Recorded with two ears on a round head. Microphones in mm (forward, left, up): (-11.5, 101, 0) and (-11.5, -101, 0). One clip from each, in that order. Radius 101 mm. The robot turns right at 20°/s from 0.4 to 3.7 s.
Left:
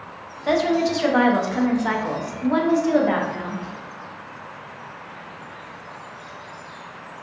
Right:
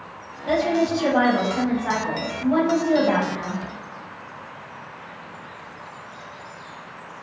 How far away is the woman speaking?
About 0.7 m.